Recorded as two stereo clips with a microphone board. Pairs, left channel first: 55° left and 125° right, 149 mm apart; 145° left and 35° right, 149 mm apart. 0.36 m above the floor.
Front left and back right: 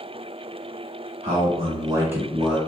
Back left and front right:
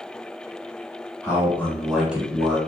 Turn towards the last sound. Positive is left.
turn(degrees=0)